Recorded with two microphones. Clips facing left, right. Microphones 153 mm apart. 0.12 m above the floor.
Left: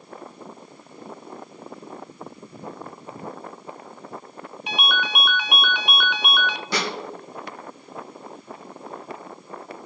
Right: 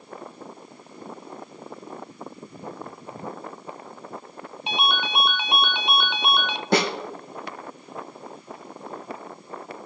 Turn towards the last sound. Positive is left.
turn(degrees=-55)  # may be behind; listen again after turning